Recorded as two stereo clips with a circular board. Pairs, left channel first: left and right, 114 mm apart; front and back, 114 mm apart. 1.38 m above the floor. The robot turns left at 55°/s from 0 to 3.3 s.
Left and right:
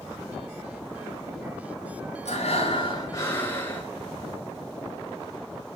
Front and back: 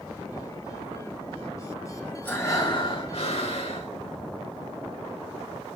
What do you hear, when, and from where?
2.2 s breathing: 80° left, 5.5 m; by 3.9 s 20° left, 5.5 m